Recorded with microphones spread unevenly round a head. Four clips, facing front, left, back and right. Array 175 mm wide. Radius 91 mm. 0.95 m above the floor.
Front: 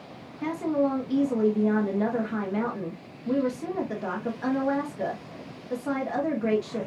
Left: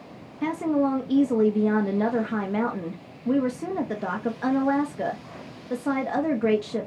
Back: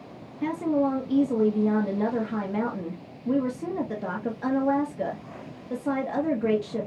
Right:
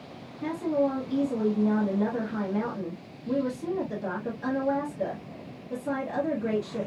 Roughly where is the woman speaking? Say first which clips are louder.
Left 3 dB, back 1 dB; left.